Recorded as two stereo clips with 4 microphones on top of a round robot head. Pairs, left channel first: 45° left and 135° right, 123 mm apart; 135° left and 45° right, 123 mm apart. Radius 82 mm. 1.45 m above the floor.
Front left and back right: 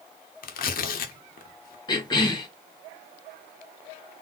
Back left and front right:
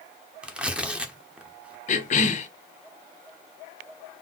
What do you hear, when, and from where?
0.4 s tearing paper: 40° left, 0.7 m
1.9 s a cough: 105° left, 1.1 m